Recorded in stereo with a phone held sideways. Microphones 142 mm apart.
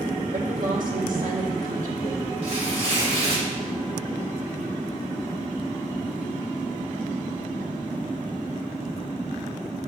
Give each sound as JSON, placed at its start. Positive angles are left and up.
{"t": 0.3, "sound": "a woman speaking", "side_deg": -70, "distance_m": 1.7}
{"t": 2.4, "sound": "tearing paper", "side_deg": -50, "distance_m": 2.5}